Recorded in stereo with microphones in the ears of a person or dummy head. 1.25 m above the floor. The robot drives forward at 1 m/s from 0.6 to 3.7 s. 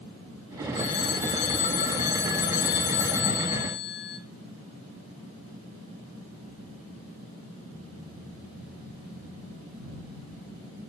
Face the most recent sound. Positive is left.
turn(degrees=80)